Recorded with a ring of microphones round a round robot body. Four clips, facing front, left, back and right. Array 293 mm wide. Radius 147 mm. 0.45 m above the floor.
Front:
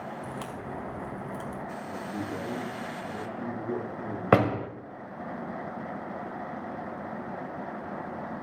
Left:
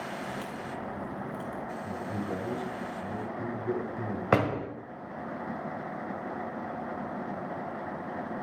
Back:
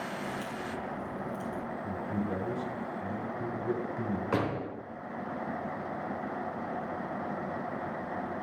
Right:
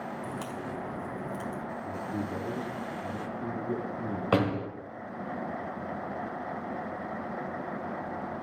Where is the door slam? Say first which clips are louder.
Left 1 dB, front 10 dB; 15° left, 1.4 m.